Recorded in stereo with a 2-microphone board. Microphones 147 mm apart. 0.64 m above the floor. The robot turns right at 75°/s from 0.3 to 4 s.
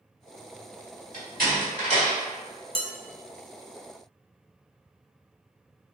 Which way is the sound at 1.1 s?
70° right (ahead or behind).